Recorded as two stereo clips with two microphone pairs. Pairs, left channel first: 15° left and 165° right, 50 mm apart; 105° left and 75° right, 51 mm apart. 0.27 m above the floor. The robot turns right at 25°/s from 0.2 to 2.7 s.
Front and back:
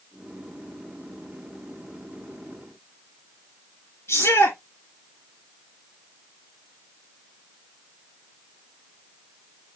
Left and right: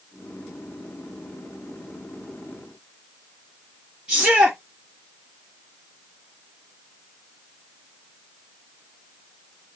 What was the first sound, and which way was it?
A shout, straight ahead.